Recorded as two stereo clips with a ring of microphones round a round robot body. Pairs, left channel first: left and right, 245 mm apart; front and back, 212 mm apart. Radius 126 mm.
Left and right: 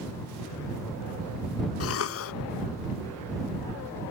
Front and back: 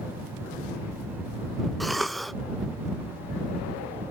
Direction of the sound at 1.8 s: 90° left.